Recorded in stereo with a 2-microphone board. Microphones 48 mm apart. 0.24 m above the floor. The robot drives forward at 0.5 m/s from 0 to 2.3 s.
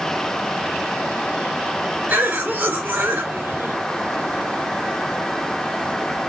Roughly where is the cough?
Right.